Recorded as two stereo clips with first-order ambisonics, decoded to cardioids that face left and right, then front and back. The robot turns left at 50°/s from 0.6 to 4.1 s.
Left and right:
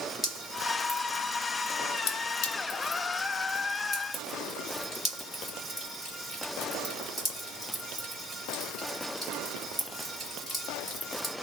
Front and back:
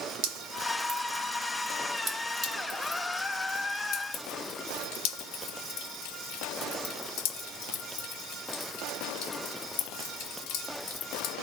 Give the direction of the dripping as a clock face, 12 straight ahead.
6 o'clock.